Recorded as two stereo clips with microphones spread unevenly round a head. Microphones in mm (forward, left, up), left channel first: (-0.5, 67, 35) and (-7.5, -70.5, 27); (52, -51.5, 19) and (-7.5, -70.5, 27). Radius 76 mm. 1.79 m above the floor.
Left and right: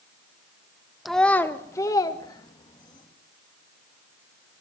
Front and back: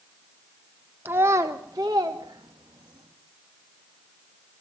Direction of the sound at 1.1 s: 175° left.